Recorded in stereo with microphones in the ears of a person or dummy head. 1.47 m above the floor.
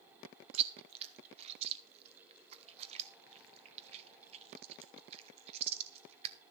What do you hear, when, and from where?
0.5 s chewing: 35° right (ahead or behind), 0.8 m